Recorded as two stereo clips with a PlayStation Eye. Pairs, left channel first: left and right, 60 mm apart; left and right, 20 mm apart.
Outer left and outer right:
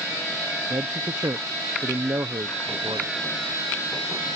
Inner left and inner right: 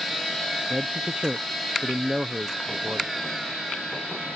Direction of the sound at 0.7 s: 85° right.